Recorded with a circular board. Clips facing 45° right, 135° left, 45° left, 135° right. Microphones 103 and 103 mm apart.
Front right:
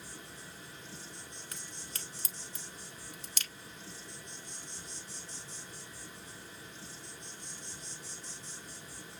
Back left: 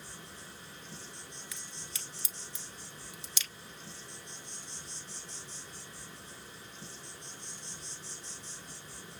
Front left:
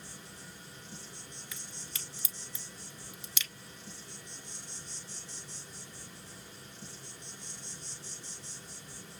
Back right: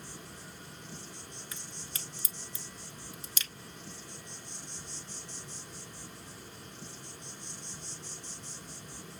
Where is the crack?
85° right, 1.0 m.